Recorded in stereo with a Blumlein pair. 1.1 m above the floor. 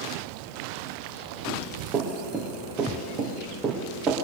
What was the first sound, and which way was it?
Running footsteps, 25° right.